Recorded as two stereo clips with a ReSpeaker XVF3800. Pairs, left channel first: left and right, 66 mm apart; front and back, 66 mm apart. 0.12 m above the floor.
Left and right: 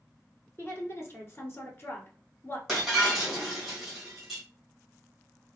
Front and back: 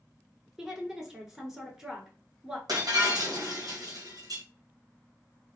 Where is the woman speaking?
105° left, 1.3 m.